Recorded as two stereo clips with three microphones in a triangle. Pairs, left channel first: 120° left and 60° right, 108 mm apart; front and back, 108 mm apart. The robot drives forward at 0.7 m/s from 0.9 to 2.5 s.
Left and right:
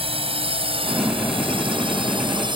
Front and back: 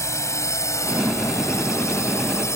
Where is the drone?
60° right; by 2.5 s 55° right.